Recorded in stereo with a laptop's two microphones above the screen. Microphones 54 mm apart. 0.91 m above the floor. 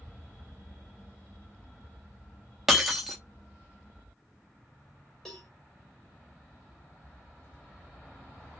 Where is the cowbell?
5° left (ahead or behind), 1.0 m.